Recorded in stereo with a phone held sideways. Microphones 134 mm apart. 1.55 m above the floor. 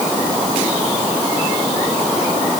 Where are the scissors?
I don't hear scissors.